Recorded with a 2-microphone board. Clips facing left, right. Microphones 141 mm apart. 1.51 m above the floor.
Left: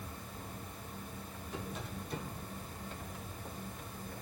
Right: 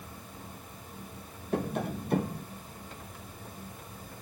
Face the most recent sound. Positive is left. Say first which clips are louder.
# right 12 dB
turn(degrees=-65)  # may be behind; listen again after turning